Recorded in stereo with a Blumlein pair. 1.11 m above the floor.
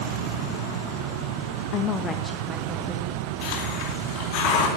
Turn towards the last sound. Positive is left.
turn(degrees=45)